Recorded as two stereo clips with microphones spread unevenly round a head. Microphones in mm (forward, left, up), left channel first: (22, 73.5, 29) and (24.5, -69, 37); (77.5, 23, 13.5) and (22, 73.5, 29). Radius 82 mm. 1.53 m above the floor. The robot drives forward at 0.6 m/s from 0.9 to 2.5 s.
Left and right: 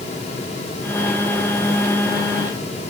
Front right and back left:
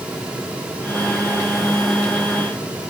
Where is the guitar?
I don't hear a guitar.